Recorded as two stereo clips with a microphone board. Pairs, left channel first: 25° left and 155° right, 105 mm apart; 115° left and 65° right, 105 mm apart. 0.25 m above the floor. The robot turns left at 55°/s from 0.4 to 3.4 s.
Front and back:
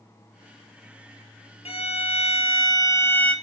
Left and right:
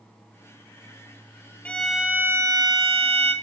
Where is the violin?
35° left, 1.0 m; by 3.3 s 60° right, 1.0 m.